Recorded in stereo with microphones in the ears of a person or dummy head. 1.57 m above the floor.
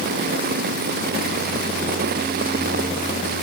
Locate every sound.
Only background noise.